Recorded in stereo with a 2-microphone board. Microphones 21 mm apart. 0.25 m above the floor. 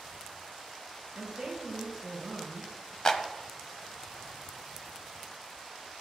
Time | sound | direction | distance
1.1 | a woman speaking | 20° right (ahead or behind) | 3 m
3.0 | a clap | 35° left (ahead or behind) | 1.1 m